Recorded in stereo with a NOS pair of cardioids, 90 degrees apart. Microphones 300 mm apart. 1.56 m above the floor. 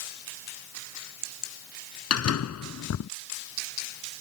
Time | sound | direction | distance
2.1 | a door slam | 55° left | ?